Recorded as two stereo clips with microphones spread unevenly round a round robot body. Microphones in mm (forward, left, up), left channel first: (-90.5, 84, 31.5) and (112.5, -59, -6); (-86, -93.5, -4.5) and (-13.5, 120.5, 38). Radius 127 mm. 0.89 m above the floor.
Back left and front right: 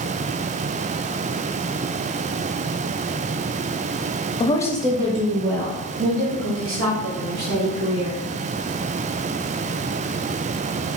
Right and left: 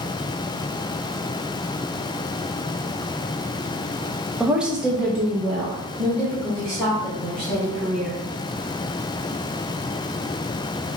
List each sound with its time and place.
4.4 s a woman speaking: straight behind, 0.6 m; by 8.2 s 20° right, 2.5 m